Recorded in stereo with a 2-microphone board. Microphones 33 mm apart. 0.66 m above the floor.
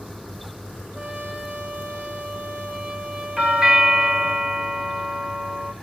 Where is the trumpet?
45° right (ahead or behind), 3 m.